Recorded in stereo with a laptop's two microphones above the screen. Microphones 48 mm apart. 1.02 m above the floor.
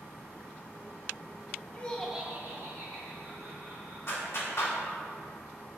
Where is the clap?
60° left (ahead or behind), 1.7 m.